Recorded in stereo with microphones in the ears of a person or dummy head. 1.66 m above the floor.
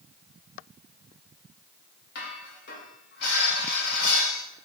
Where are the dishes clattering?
65° left (ahead or behind), 2 m.